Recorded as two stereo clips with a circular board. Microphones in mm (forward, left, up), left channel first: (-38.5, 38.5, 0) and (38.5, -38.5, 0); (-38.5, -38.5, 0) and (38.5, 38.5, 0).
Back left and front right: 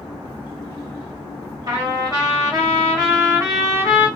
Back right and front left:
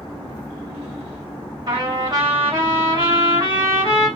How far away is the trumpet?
About 1.5 m.